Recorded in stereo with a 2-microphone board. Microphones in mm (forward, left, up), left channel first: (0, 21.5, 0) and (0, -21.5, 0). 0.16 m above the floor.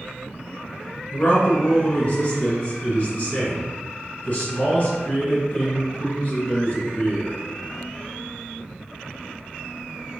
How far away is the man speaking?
About 1.7 m.